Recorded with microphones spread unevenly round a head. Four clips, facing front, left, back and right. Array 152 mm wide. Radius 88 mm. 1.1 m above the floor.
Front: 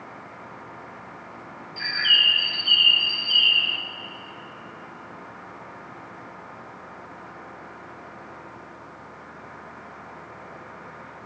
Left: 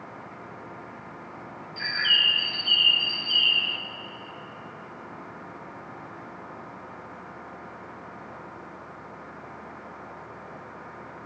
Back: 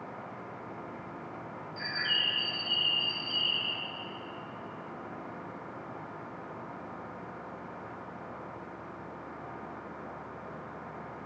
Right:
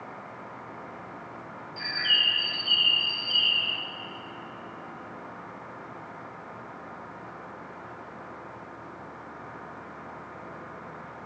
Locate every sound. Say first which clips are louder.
1.8 s a bird: left 3 dB, front 9 dB; 35° left, 2 m